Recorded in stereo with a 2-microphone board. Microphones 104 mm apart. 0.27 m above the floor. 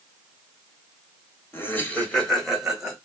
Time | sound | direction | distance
1.5 | laughter | 20° left (ahead or behind) | 1.4 m